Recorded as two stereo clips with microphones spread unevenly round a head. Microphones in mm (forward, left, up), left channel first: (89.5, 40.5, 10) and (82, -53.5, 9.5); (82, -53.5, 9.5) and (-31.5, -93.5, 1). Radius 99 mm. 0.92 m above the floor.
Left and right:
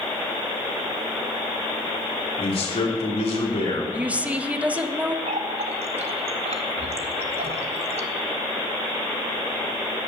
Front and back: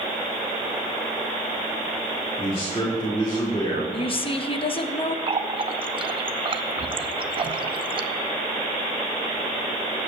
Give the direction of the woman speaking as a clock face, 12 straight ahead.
1 o'clock.